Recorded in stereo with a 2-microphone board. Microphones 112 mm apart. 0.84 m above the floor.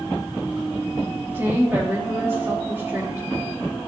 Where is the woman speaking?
20° right (ahead or behind), 1.2 m.